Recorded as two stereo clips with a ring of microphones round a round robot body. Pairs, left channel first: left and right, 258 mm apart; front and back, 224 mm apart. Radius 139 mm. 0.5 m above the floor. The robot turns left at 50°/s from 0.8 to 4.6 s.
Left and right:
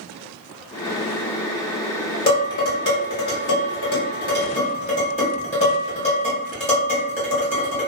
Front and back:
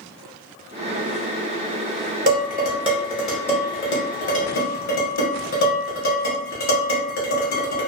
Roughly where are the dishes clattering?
Behind left.